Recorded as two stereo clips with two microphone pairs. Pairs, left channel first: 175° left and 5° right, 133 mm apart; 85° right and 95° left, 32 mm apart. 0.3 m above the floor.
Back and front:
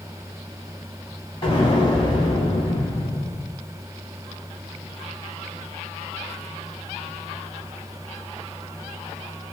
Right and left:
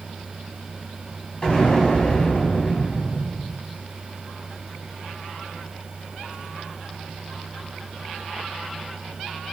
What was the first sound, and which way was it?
An explosion, 140° right.